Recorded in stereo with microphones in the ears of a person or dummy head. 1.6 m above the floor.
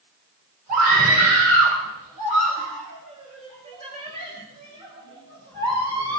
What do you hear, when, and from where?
0.7 s a scream: 50° right (ahead or behind), 5 m; by 6.2 s 30° right (ahead or behind), 7.5 m